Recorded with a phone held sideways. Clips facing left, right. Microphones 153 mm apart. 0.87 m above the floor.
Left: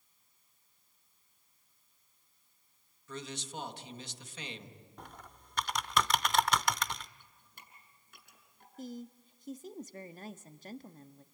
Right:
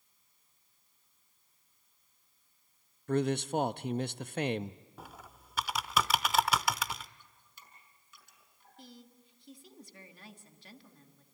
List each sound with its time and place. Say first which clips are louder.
3.1 s a man speaking: right 14 dB; 60° right (ahead or behind), 0.7 m
5.0 s typing on a keyboard: even; 5° right (ahead or behind), 0.6 m
7.2 s dripping: left 1 dB; 60° left (ahead or behind), 5.5 m
8.8 s a woman speaking: left 10 dB; 45° left (ahead or behind), 1.2 m